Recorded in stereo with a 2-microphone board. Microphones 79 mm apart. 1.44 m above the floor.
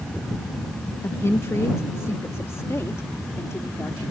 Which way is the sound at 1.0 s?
40° left (ahead or behind).